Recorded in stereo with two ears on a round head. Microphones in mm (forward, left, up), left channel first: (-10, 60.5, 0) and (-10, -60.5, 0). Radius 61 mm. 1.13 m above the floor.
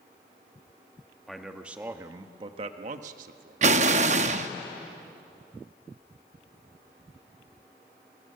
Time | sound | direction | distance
1.3 | a man speaking | centre (ahead or behind) | 1.5 m
3.6 | an explosion | 55° right (ahead or behind) | 0.8 m